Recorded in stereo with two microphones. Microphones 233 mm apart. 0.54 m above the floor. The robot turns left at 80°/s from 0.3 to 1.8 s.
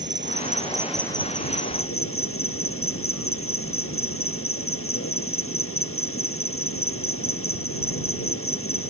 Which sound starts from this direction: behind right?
An insect, at 0.0 s.